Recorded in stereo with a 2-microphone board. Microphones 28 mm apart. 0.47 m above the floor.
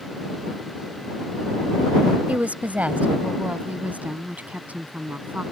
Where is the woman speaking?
65° right (ahead or behind); by 5.4 s 70° right (ahead or behind).